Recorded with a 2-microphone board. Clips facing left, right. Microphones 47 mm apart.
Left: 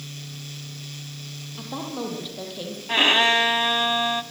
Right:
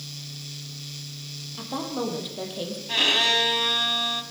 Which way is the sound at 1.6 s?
5° right (ahead or behind).